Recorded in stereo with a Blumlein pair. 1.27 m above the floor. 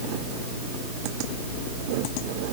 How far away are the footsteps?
No footsteps in this recording.